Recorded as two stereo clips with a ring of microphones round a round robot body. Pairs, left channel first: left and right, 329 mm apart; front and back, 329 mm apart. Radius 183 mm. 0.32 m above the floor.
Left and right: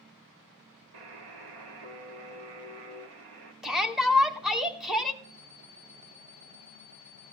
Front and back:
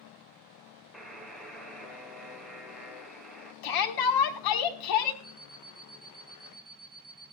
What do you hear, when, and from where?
0.9 s a buzzer: 90° right, 3.5 m
3.6 s a shout: straight ahead, 2.5 m
5.2 s an alarm clock: 80° right, 5 m